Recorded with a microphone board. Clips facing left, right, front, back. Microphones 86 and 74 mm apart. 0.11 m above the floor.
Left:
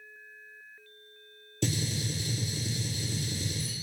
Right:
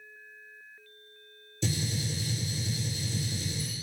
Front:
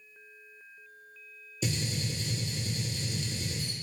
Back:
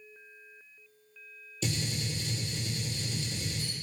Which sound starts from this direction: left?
A gunshot, at 1.6 s.